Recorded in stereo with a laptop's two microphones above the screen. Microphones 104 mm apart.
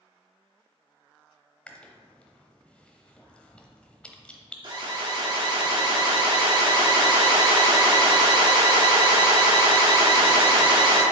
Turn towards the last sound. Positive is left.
turn(degrees=-50)  # may be behind; listen again after turning